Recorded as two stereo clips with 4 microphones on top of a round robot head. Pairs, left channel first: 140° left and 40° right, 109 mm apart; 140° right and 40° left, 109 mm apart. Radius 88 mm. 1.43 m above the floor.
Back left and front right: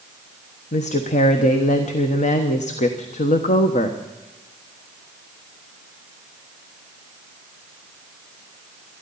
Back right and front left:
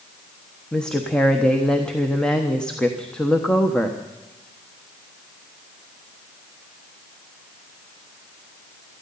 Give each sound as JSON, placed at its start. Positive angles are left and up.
{"t": 0.7, "sound": "a woman speaking", "azimuth_deg": 135, "distance_m": 1.2}